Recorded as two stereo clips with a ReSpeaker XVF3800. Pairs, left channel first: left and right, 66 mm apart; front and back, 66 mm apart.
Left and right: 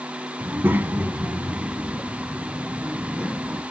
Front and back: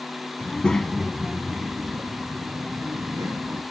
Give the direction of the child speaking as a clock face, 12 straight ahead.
2 o'clock.